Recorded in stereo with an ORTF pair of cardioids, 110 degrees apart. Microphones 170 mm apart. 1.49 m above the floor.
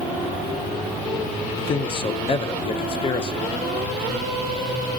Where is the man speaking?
30° left, 1.2 m.